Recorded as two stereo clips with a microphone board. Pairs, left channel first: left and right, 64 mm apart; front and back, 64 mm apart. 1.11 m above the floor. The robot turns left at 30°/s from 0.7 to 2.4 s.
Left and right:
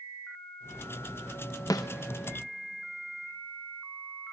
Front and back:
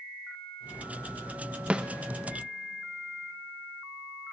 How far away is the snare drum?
About 0.9 m.